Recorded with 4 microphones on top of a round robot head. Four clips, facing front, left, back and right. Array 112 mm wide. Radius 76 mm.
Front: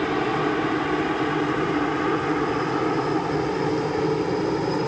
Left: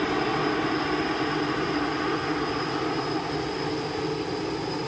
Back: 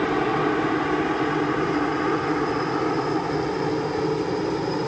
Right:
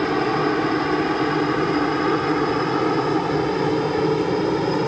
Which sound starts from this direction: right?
A helicopter, at 0.0 s.